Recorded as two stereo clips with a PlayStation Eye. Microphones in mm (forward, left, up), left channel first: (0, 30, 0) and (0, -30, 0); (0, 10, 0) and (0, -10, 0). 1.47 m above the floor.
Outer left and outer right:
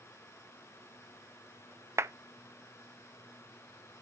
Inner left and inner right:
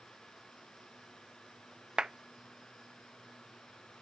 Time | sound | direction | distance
2.0 | a clap | 50° right (ahead or behind) | 0.6 m